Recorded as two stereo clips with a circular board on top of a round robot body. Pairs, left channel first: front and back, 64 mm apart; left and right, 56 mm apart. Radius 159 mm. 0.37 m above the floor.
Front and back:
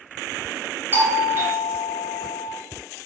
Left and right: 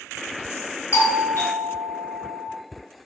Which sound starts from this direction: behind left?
A doorbell, at 0.9 s.